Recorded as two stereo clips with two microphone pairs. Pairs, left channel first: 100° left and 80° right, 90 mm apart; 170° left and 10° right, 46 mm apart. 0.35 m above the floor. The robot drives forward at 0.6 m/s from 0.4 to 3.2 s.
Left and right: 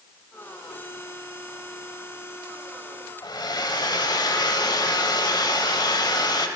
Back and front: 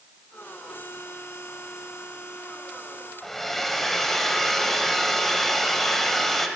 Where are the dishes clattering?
I don't hear dishes clattering.